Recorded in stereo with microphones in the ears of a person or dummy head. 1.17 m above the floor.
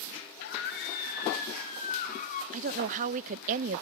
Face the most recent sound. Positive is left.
turn(degrees=-40)  # may be behind; listen again after turning